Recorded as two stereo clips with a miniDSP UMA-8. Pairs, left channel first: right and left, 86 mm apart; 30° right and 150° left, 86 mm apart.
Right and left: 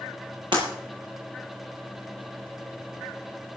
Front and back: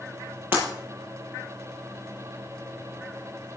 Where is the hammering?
I don't hear hammering.